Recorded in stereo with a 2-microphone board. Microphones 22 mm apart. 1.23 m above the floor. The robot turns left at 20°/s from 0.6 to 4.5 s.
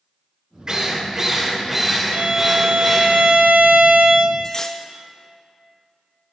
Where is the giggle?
I don't hear a giggle.